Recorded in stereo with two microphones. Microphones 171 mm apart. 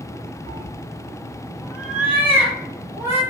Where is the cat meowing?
20° left (ahead or behind), 0.5 m; by 3.2 s 15° right (ahead or behind), 1.7 m.